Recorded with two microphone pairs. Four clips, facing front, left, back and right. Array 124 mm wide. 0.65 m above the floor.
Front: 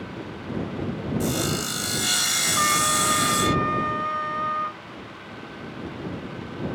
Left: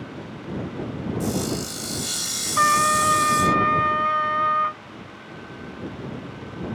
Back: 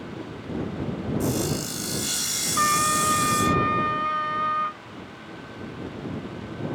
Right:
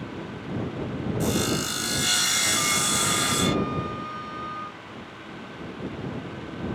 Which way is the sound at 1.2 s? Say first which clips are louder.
Right 1 dB, even; 45° right.